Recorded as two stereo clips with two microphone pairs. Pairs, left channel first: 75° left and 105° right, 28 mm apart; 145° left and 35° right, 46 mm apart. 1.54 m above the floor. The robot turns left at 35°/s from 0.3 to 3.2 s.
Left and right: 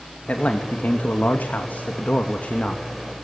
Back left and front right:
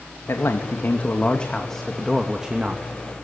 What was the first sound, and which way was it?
A man speaking, 115° left.